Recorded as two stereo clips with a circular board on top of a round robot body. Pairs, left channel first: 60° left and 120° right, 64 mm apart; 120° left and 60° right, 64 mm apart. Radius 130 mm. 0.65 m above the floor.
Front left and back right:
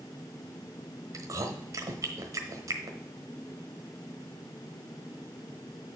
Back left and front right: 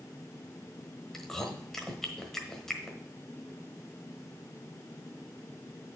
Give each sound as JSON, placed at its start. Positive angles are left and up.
{"t": 1.1, "sound": "chewing", "azimuth_deg": -160, "distance_m": 1.2}